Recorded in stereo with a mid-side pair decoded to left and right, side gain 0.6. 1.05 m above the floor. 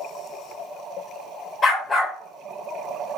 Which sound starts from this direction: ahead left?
A dog barking, at 1.6 s.